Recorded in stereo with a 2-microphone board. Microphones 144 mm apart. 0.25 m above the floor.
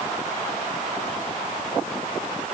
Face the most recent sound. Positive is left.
No sound to turn to.